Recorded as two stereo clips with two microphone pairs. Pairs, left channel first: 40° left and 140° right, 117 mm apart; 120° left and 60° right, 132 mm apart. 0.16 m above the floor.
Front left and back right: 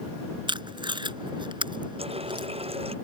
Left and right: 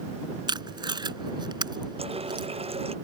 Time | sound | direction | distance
0.5 | tape being pulled | 110° right | ?
2.0 | a running tap | 105° right | ?